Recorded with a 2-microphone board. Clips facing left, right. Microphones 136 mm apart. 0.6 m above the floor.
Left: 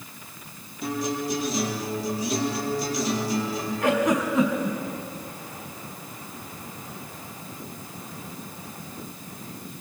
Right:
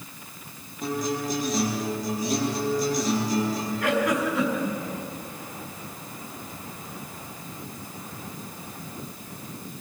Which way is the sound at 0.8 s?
40° right (ahead or behind).